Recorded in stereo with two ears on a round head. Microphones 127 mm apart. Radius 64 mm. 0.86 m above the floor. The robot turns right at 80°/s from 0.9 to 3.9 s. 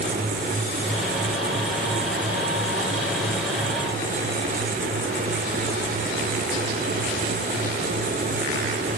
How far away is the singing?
No singing in this recording.